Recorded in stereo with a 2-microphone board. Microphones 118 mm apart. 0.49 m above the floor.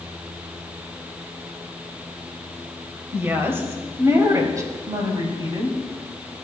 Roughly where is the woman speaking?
Centre.